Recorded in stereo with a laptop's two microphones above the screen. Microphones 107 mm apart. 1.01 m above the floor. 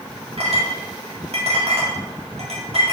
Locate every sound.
0.4 s a clink: 75° right (ahead or behind), 1.8 m